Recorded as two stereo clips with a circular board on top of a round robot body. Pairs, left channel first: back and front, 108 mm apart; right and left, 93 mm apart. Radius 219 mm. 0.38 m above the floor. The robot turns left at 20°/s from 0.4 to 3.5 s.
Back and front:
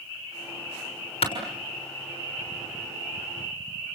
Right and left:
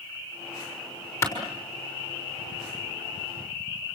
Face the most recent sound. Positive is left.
turn(degrees=170)